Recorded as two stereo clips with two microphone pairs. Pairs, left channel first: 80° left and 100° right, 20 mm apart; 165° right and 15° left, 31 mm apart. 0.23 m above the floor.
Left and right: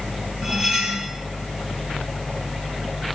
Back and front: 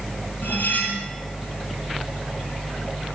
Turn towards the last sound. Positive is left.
turn(degrees=-160)